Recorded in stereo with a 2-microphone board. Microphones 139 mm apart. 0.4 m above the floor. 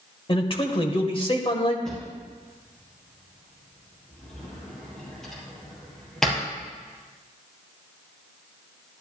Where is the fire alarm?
I don't hear a fire alarm.